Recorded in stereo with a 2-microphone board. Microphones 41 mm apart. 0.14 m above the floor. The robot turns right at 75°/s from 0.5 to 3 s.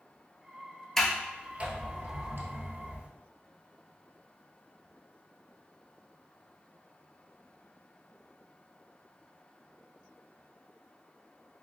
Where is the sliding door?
10° left (ahead or behind), 0.9 m; by 3.1 s 35° right (ahead or behind), 0.9 m.